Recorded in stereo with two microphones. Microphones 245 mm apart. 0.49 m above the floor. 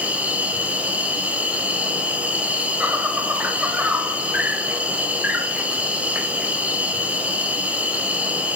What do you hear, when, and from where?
0.0 s an insect: 5° right (ahead or behind), 1.6 m